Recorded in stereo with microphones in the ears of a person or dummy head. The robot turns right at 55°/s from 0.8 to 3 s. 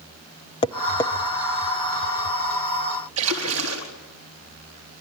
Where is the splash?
85° right, 4 m.